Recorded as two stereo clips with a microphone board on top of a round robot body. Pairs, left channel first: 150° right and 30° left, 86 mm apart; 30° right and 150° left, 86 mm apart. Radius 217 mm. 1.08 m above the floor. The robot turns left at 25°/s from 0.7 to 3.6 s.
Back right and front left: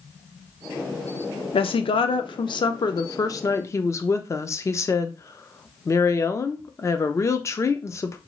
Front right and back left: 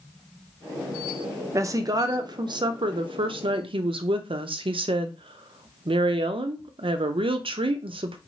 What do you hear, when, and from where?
1.5 s a woman speaking: 155° right, 0.6 m; by 8.2 s 155° left, 0.6 m